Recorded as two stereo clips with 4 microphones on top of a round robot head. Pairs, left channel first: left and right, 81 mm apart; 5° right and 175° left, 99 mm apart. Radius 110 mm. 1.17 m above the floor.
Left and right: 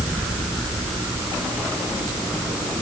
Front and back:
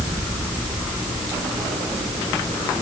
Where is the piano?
No piano in this recording.